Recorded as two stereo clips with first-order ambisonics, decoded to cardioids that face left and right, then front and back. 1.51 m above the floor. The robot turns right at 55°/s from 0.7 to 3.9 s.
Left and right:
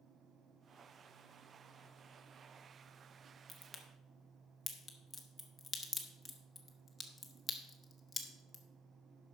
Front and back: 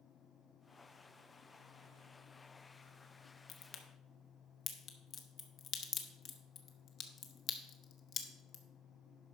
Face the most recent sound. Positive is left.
turn(degrees=15)